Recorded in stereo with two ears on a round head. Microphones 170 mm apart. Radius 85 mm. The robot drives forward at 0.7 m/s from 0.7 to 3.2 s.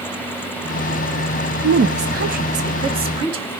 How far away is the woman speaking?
About 0.6 m.